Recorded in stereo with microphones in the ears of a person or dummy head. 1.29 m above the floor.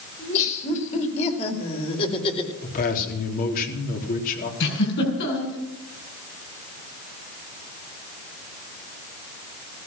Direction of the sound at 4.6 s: 65° left (ahead or behind).